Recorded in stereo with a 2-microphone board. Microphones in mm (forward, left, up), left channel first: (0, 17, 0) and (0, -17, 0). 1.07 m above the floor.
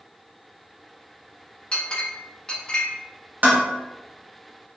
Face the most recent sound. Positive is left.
turn(degrees=-60)  # may be behind; listen again after turning